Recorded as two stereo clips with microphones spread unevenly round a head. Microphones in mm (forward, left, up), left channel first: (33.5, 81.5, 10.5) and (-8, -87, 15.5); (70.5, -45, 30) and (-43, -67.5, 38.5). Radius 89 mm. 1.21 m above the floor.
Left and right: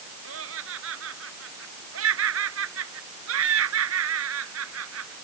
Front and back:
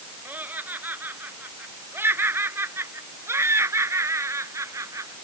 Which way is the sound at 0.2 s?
95° right.